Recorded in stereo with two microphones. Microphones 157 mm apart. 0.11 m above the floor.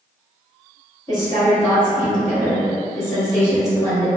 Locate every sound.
1.1 s a woman speaking: 20° left (ahead or behind), 1.6 m